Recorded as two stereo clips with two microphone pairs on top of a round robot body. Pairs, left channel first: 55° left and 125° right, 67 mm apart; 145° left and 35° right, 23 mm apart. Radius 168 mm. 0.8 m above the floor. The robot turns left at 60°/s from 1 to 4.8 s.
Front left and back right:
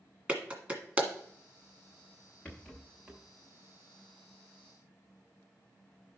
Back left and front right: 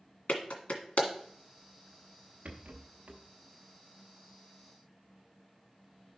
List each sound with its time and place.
0.3 s a clap: 165° left, 1.8 m; by 1.1 s 160° left, 1.8 m
2.5 s a rattle: 20° right, 0.6 m; by 3.2 s 70° right, 0.6 m